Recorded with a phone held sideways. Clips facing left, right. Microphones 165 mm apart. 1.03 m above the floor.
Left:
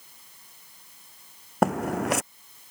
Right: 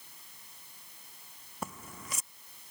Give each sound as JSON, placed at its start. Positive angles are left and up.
{"t": 1.6, "sound": "footsteps", "side_deg": 70}